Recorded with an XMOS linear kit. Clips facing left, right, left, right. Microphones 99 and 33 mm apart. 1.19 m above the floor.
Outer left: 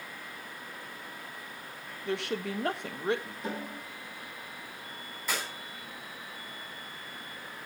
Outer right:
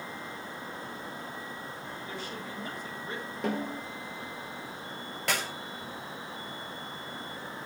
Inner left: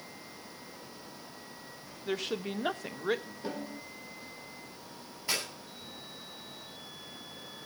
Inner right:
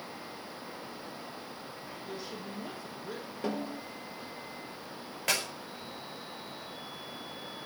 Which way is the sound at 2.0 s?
70° left (ahead or behind).